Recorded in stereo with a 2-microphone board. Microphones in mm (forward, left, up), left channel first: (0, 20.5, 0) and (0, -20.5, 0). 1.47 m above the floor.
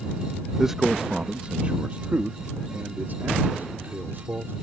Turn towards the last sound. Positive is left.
turn(degrees=-55)  # may be behind; listen again after turning